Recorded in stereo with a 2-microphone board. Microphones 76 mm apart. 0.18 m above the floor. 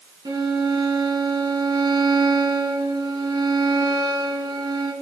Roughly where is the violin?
Right.